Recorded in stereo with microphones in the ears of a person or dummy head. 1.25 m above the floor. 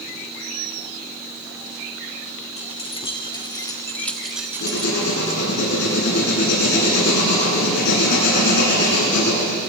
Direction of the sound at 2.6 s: 30° left (ahead or behind).